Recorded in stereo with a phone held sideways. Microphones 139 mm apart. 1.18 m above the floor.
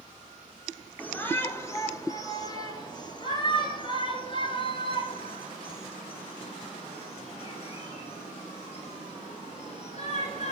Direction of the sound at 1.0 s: 10° left (ahead or behind).